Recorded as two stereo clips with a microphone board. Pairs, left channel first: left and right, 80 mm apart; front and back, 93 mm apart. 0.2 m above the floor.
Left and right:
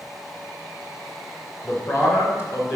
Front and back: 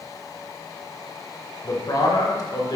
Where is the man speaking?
45° left, 2.5 m.